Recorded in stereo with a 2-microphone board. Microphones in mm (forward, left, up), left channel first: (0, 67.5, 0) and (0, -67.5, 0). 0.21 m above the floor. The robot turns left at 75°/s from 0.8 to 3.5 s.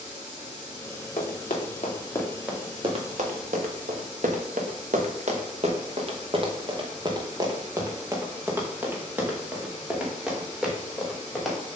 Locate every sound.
1.2 s running footsteps: 75° left (ahead or behind), 3 m; by 11.6 s centre (ahead or behind), 4 m